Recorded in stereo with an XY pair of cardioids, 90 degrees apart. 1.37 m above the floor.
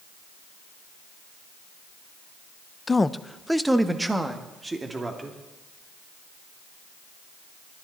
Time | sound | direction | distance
2.9 | a man speaking | 30° left | 0.7 m